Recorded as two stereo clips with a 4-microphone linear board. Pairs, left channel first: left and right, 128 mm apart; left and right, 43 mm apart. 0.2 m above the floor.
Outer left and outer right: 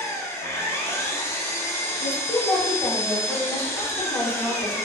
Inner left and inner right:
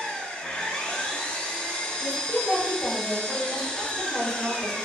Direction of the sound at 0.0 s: 20° left (ahead or behind).